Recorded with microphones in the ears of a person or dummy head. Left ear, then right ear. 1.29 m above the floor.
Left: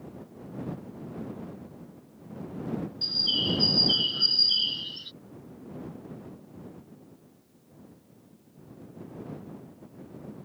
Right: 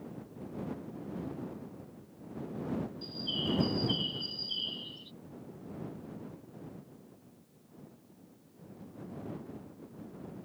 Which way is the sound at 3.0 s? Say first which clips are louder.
Left 12 dB; 55° left (ahead or behind).